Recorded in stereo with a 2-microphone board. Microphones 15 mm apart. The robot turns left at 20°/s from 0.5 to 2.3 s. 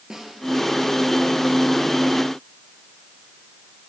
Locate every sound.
0.1 s a snare drum: 35° right (ahead or behind), 7 m